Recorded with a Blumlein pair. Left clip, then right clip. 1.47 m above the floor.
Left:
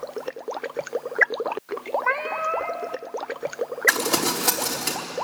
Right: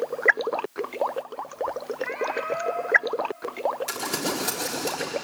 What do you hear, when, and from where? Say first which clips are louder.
2.0 s a cat meowing: left 2 dB; 60° left, 2.5 m
3.9 s crumpling: left 7 dB; 70° left, 4 m